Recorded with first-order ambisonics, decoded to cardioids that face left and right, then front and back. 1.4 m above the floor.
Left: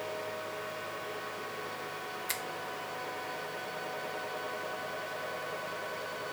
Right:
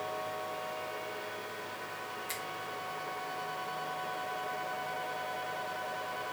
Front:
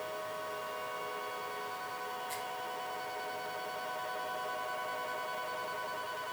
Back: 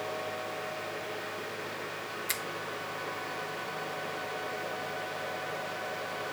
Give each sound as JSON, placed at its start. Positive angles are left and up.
{"t": 2.3, "sound": "a finger snap", "azimuth_deg": 160, "distance_m": 0.9}